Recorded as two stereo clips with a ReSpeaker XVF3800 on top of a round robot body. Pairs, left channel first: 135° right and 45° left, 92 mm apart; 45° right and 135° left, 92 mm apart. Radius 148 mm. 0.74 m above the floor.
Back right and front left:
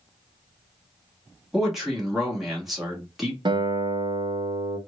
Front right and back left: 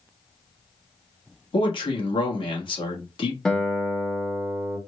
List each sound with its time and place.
1.5 s a man speaking: 40° right, 2 m
3.5 s a guitar: 35° left, 1.3 m